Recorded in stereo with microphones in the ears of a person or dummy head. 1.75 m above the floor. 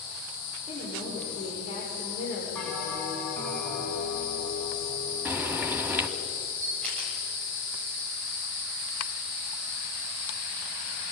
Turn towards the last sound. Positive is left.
turn(degrees=5)  # may be behind; listen again after turning